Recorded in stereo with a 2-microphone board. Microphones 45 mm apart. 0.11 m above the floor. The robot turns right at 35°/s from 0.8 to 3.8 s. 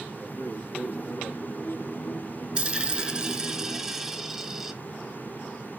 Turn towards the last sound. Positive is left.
turn(degrees=-10)  # may be behind; listen again after turning